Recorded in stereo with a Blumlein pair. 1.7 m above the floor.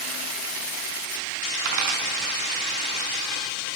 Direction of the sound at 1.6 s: 40° right.